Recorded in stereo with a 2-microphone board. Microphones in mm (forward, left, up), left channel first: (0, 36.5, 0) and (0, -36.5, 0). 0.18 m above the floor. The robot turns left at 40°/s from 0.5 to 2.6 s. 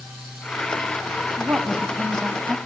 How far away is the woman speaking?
About 1.5 m.